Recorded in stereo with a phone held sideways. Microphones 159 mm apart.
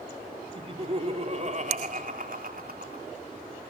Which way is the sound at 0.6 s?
35° right (ahead or behind).